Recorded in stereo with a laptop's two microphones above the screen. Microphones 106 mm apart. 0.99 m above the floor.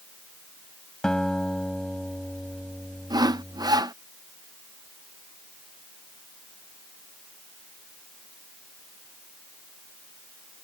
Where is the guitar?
5° left (ahead or behind).